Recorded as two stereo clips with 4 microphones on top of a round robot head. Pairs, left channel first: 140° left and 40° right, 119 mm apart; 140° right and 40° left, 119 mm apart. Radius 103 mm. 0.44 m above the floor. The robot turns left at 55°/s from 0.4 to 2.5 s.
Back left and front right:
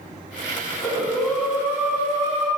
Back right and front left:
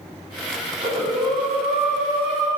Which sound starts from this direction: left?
Breathing, at 0.7 s.